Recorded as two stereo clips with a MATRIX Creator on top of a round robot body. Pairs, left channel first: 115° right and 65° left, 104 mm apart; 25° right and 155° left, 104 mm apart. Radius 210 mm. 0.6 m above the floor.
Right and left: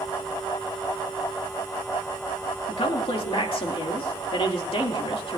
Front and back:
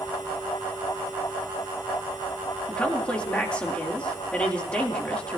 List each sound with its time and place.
2.7 s a man speaking: 100° right, 2.5 m